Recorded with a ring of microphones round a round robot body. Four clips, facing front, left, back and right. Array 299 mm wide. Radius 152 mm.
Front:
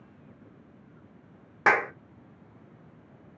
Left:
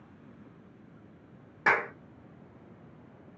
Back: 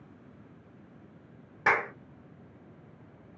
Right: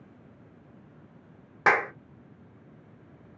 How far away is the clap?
About 0.6 m.